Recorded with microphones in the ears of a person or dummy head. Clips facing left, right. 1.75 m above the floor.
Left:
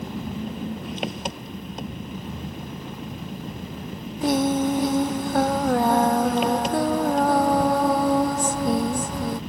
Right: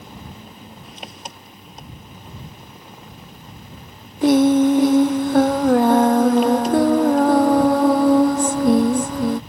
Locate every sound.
0.0 s an engine running: 55° left (ahead or behind)
4.2 s singing: 45° right (ahead or behind)